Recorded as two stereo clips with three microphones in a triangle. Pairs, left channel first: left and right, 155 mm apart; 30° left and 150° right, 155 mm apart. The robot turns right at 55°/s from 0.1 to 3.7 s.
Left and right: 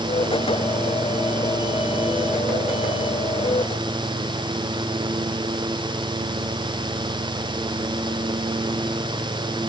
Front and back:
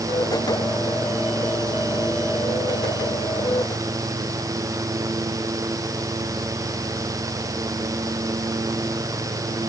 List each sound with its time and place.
Only background noise.